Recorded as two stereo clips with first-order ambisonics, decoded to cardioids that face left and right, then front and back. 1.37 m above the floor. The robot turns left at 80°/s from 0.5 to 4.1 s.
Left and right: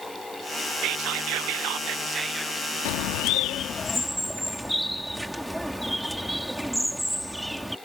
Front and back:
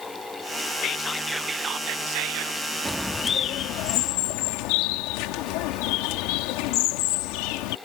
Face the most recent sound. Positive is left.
turn(degrees=0)